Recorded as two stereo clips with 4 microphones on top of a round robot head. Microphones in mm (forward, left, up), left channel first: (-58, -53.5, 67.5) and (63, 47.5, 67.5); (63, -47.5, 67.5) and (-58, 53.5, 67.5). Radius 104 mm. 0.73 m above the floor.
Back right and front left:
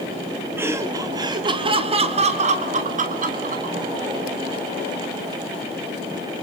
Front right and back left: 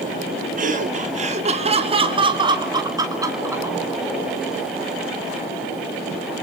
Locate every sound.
0.6 s laughter: 115° left, 2.5 m; by 3.8 s 65° left, 3.5 m